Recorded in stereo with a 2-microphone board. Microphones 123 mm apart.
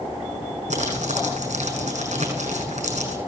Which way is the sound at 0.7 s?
75° right (ahead or behind).